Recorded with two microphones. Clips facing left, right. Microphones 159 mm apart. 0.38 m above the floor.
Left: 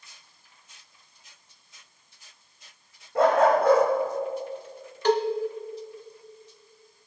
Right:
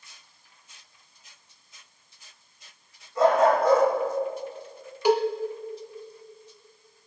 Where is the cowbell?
10° right (ahead or behind), 0.7 m.